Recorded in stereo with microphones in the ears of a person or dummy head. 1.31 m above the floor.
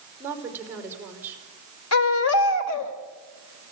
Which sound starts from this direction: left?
A baby crying, at 1.9 s.